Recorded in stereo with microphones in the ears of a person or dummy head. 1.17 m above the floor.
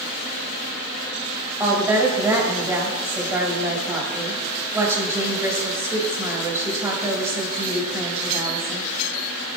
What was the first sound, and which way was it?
A woman speaking, 10° right (ahead or behind).